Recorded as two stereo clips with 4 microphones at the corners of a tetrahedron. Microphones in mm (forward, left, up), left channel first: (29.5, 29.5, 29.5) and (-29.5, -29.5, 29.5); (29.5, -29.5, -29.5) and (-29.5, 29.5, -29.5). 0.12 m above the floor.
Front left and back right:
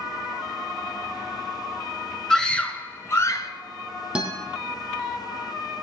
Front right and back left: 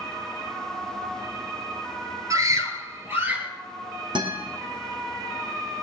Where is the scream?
125° left, 1.7 m; by 3.5 s 70° left, 1.9 m.